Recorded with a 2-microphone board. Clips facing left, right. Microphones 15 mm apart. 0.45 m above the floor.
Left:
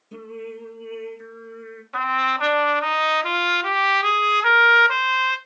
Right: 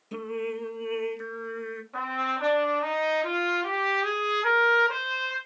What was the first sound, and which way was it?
Singing, 35° right (ahead or behind).